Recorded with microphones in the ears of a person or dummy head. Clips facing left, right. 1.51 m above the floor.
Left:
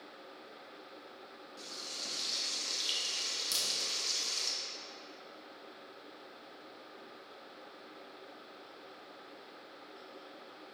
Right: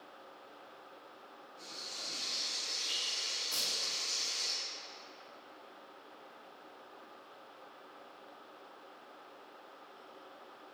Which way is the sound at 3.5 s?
55° left (ahead or behind).